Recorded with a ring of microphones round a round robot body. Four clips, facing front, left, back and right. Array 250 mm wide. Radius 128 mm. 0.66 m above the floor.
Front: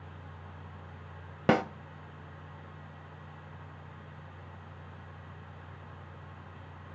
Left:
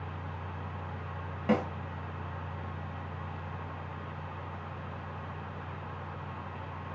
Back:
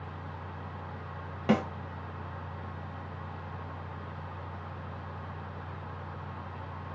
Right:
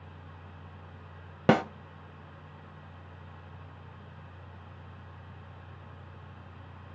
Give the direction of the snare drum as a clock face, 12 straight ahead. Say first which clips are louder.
Right 5 dB, front 1 dB; 2 o'clock.